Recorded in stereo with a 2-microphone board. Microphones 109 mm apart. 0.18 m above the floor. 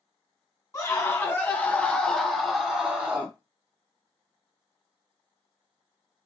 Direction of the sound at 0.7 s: 30° left (ahead or behind).